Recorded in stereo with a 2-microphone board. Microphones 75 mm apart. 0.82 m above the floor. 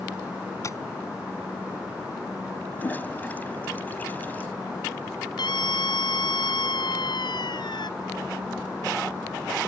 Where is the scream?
70° left (ahead or behind).